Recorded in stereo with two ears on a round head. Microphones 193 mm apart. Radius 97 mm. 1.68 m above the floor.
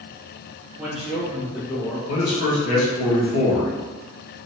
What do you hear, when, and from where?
0.8 s a man speaking: 5° right (ahead or behind), 1.0 m; by 2.0 s 5° left (ahead or behind), 2.5 m
2.1 s a man speaking: 85° left, 1.7 m